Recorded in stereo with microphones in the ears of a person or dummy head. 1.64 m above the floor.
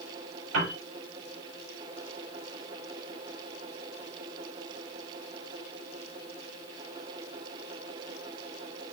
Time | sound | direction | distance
0.5 | a piano | 85° right | 7.5 m